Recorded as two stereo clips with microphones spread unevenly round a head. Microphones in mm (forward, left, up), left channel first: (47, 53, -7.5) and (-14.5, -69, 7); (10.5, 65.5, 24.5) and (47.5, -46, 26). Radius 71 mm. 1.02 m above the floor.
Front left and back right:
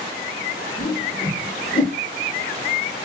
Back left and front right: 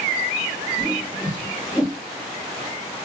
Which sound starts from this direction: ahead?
A whoosh, at 0.8 s.